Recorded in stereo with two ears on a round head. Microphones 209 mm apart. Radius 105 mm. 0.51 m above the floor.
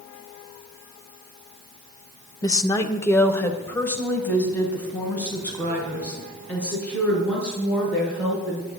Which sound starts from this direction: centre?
A woman speaking, at 2.4 s.